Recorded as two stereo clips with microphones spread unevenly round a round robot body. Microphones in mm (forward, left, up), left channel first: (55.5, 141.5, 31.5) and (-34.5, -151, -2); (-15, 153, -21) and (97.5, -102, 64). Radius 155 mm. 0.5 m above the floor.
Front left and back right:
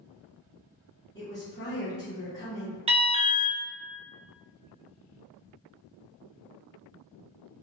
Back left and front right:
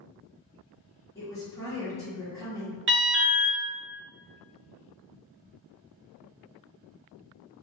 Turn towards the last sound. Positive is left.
turn(degrees=-110)